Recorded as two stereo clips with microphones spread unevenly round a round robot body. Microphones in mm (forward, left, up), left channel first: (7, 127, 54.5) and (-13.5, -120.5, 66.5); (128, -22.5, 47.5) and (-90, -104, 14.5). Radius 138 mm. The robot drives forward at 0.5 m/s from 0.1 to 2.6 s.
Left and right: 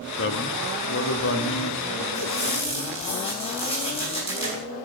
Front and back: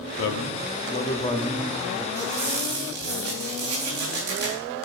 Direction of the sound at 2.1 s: 150° left.